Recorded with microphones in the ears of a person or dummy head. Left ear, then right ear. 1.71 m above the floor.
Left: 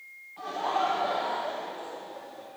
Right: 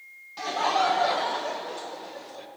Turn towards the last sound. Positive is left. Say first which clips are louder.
# right 4 dB
turn(degrees=-75)  # may be behind; listen again after turning